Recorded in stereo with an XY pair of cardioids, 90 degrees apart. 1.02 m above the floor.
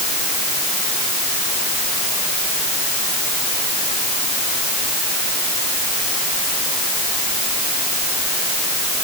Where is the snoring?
No snoring in this recording.